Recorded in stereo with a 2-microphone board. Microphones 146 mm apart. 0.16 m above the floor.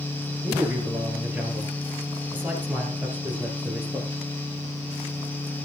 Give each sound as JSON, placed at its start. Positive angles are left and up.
{"t": 0.4, "sound": "a man speaking", "side_deg": -10, "distance_m": 3.5}